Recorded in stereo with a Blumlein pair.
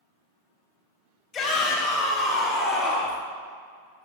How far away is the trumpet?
I don't hear a trumpet.